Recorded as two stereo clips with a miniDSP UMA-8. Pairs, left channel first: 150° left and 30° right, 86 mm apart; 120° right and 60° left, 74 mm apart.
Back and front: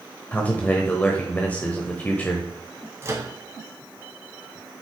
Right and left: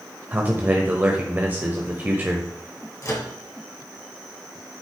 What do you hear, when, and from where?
0.3 s a man speaking: 100° left, 1.1 m
3.0 s a microwave: 85° right, 2.0 m